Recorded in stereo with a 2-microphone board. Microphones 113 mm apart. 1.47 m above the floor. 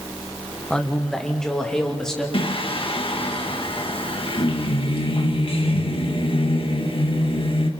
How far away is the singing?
About 1.7 m.